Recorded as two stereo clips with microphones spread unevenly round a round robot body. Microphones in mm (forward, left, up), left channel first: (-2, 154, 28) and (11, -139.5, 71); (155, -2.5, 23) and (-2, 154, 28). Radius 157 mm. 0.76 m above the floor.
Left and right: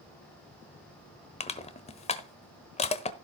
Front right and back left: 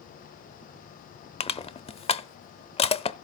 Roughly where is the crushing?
Ahead.